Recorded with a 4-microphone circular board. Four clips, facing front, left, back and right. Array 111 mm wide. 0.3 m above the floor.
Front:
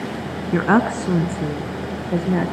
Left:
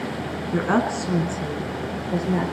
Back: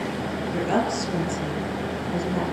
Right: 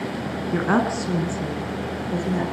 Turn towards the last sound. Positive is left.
turn(degrees=10)